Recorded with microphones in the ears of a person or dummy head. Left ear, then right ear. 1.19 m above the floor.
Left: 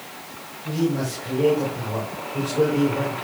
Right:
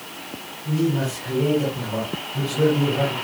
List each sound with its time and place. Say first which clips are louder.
0.7 s a man speaking: right 1 dB; 50° left (ahead or behind), 5.5 m